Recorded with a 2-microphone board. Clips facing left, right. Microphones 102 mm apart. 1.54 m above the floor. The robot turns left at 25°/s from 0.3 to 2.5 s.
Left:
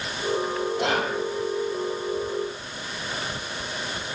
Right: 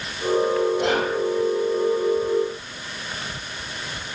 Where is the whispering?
85° left, 2.5 m; by 1.1 s 80° left, 2.5 m.